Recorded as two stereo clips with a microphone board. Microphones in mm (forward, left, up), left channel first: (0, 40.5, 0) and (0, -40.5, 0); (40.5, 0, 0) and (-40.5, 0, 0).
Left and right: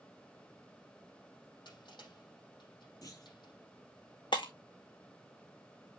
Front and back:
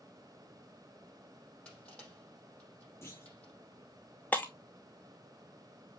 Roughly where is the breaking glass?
Left.